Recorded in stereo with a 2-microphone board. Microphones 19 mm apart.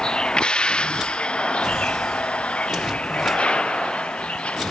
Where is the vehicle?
40° left (ahead or behind); by 4.7 s 90° left.